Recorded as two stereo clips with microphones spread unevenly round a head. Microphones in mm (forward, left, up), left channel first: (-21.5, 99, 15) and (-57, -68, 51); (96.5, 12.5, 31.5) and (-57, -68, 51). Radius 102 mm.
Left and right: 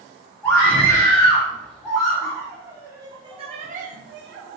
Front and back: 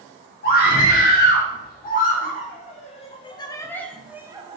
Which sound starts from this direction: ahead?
A scream, at 0.4 s.